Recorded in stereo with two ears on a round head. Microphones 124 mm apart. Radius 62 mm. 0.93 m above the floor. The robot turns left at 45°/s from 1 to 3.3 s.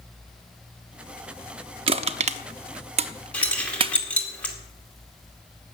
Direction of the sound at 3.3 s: 10° left (ahead or behind).